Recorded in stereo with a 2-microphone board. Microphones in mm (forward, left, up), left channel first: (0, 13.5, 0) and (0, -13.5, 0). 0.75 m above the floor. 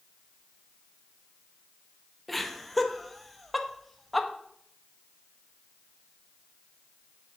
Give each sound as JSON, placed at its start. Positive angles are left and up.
{"t": 2.3, "sound": "laughter", "side_deg": 5, "distance_m": 0.7}